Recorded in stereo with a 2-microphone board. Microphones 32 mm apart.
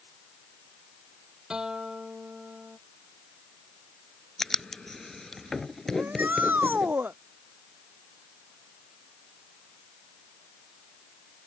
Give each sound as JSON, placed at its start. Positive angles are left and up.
{"t": 1.5, "sound": "a guitar", "side_deg": -20}
{"t": 4.4, "sound": "writing", "side_deg": 15}
{"t": 6.0, "sound": "a shout", "side_deg": -75}